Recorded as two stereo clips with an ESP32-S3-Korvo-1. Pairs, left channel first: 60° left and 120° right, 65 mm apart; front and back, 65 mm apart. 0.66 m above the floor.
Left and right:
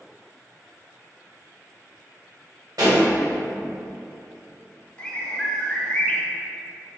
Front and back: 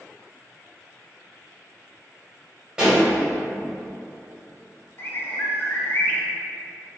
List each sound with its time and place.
2.8 s a pop: 100° right, 1.9 m
5.0 s a bird: straight ahead, 0.5 m